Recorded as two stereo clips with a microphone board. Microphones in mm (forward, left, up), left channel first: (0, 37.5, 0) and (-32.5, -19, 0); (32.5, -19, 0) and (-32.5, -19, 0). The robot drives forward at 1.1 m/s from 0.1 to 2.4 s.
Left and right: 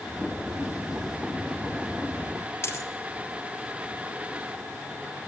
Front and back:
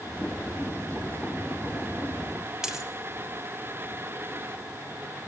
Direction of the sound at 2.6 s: 100° left.